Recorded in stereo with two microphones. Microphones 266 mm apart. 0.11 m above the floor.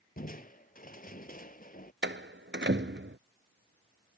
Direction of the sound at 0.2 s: 30° left (ahead or behind).